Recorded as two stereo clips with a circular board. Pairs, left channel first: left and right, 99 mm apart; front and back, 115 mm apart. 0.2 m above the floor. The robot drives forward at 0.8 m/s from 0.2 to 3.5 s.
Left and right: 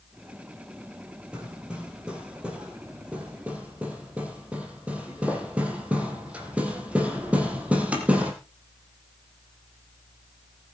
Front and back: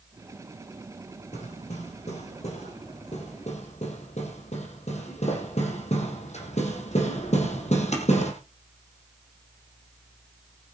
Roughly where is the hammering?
Ahead.